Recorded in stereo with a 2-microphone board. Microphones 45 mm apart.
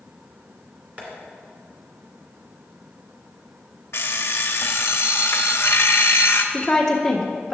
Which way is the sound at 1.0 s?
30° right (ahead or behind).